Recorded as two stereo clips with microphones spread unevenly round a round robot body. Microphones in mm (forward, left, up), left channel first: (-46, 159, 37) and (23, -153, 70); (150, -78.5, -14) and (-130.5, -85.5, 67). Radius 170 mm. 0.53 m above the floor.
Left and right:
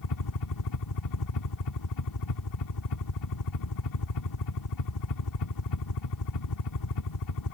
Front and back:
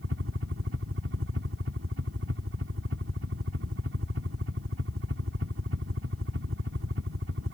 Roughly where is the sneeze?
I don't hear a sneeze.